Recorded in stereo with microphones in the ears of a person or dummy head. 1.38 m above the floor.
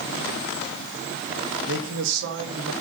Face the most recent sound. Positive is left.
turn(degrees=-75)  # may be behind; listen again after turning